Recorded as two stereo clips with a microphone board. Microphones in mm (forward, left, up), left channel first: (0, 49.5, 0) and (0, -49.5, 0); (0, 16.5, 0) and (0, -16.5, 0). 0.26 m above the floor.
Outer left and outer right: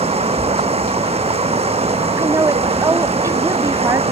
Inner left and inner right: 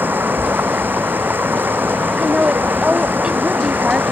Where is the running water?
85° right.